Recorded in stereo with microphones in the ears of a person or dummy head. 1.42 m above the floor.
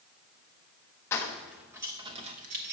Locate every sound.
1.1 s keys jangling: 10° left (ahead or behind), 0.8 m; by 2.7 s 45° right (ahead or behind), 0.9 m